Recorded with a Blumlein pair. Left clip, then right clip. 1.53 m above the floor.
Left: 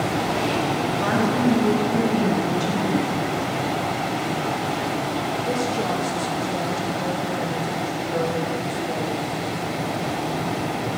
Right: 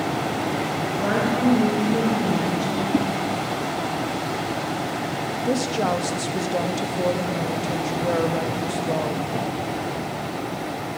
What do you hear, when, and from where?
1.0 s a woman speaking: 70° left, 4 m
2.9 s a whoosh: 15° right, 0.7 m
5.5 s a woman speaking: 20° right, 1.0 m